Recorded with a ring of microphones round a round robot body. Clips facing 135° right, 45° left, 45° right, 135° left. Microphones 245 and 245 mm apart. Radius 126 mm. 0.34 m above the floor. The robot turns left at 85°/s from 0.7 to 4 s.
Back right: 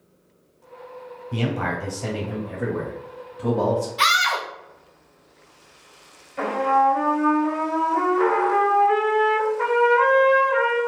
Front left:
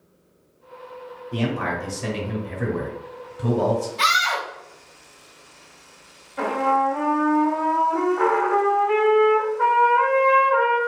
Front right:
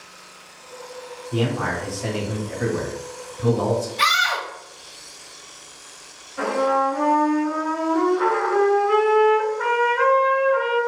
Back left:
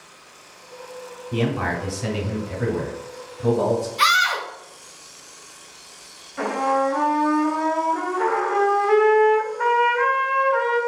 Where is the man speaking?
160° left, 1.4 m; by 3.9 s 60° right, 1.4 m.